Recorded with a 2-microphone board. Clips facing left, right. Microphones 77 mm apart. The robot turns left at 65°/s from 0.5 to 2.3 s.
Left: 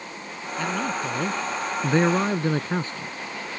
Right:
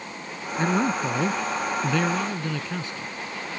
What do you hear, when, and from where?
0.6 s a man speaking: 135° right; by 3.2 s 115° left